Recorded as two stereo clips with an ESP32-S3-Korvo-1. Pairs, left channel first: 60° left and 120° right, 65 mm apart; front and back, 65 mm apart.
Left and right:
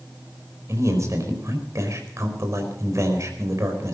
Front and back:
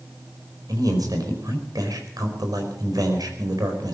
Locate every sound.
0.7 s a man speaking: 160° right, 4.5 m